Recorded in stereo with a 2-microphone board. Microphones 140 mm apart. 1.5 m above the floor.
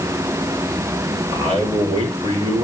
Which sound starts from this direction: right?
A man speaking, at 1.3 s.